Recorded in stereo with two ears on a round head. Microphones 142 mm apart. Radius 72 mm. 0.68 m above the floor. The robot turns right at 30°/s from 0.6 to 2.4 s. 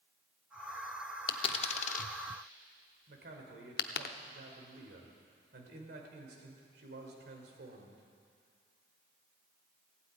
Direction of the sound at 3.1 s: 70° right (ahead or behind).